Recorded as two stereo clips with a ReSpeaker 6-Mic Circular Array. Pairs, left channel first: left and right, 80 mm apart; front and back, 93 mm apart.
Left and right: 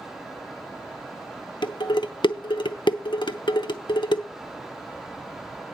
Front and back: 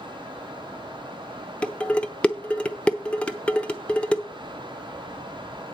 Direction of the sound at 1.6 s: 75° left.